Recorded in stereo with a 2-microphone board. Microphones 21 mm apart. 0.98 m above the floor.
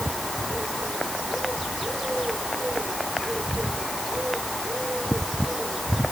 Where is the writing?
I don't hear writing.